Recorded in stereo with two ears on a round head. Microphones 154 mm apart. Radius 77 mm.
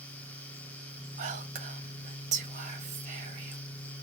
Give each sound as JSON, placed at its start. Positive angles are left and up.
{"t": 1.2, "sound": "whispering", "side_deg": -45, "distance_m": 1.0}